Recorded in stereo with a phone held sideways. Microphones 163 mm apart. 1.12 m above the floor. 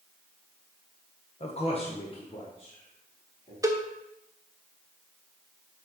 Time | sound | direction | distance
1.4 | a man speaking | 40° left (ahead or behind) | 0.8 m
3.6 | a cowbell | 20° right (ahead or behind) | 0.6 m